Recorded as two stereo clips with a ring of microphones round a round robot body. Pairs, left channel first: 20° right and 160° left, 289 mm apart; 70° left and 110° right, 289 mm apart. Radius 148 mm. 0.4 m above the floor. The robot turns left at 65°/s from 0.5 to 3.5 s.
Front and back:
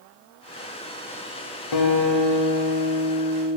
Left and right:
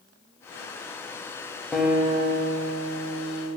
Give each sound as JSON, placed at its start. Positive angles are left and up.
{"t": 1.7, "sound": "a guitar", "azimuth_deg": -20, "distance_m": 0.8}